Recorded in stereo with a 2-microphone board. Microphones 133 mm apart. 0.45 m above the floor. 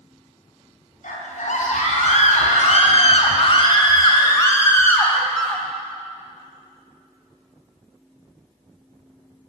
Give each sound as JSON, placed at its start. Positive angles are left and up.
{"t": 1.0, "sound": "a scream", "side_deg": 75, "distance_m": 3.5}